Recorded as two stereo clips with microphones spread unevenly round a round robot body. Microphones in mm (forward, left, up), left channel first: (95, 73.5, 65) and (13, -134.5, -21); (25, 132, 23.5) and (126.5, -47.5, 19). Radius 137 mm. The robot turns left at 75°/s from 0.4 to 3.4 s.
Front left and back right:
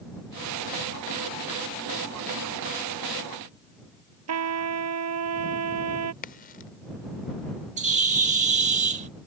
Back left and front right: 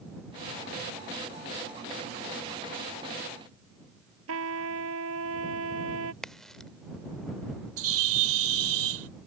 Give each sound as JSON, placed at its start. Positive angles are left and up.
{"t": 4.3, "sound": "a trumpet", "azimuth_deg": -105}
{"t": 6.2, "sound": "a crack", "azimuth_deg": 30}
{"t": 7.8, "sound": "a bird", "azimuth_deg": -60}